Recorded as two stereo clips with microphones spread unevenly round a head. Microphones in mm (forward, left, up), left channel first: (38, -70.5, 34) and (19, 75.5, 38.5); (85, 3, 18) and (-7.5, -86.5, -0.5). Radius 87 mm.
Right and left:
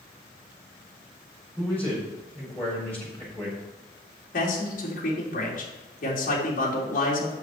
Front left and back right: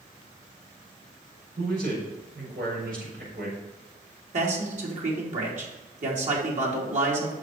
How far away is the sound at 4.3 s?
About 3 m.